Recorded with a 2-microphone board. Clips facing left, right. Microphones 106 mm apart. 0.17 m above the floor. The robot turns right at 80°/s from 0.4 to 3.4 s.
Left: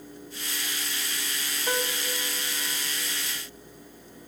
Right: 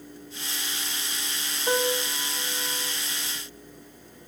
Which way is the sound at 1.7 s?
10° right (ahead or behind).